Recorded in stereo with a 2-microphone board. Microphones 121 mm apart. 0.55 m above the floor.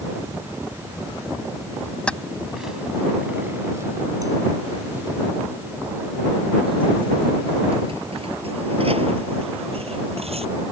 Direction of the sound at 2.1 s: 10° left (ahead or behind).